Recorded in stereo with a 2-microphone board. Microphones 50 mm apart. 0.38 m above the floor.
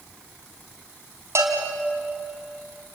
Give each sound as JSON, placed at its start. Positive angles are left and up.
{"t": 1.4, "sound": "a bell", "side_deg": -70, "distance_m": 3.5}